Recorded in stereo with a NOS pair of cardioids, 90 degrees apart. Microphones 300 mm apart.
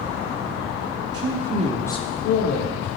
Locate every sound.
1.1 s a man speaking: 50° right, 0.9 m; by 2.9 s 75° left, 1.2 m